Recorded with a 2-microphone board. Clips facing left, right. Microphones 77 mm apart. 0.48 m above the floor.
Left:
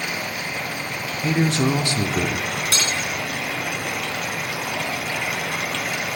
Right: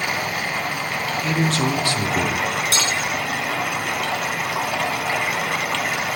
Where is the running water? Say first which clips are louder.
Right 4 dB; 85° right, 1.1 m.